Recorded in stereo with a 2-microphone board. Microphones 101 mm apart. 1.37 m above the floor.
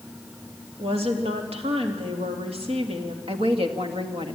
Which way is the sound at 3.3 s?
70° right (ahead or behind).